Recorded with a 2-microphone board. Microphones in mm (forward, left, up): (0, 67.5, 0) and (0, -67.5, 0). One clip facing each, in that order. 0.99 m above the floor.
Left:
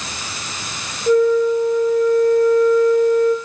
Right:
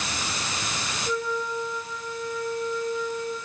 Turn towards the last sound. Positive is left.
turn(degrees=60)  # may be behind; listen again after turning